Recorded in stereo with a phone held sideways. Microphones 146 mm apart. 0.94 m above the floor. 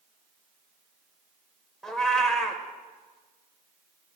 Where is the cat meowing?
5° left (ahead or behind), 1.1 m.